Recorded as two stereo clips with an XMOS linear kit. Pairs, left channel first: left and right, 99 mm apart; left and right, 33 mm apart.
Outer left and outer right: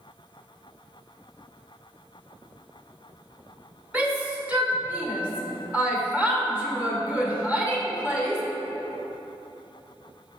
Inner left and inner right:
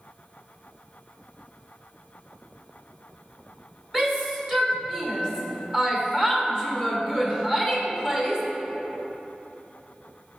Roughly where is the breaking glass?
I don't hear breaking glass.